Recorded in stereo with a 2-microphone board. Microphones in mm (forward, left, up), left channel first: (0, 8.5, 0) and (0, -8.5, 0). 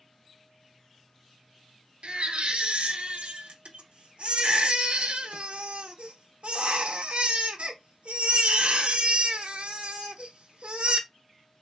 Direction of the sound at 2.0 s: 80° right.